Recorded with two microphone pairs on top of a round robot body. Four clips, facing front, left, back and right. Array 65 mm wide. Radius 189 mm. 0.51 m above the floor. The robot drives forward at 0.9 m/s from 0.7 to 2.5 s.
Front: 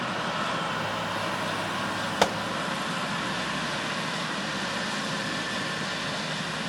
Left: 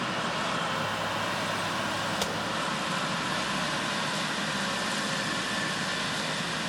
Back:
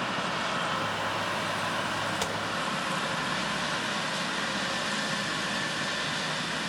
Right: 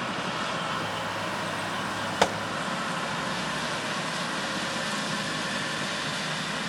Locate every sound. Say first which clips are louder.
2.2 s a gunshot: right 6 dB, front 7 dB; 45° right, 1.5 m; by 2.4 s 50° right, 1.4 m